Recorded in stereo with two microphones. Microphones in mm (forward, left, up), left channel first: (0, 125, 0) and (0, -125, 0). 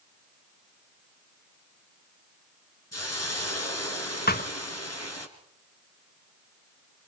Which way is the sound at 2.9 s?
70° left (ahead or behind).